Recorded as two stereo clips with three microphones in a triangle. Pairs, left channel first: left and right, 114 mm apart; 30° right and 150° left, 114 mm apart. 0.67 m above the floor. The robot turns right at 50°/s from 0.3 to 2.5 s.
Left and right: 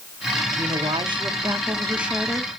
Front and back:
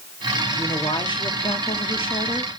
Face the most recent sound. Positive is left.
turn(degrees=10)